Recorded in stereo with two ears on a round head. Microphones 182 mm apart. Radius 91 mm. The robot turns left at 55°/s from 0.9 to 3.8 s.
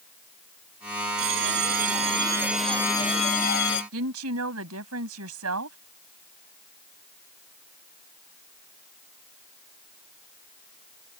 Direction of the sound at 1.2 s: 100° right.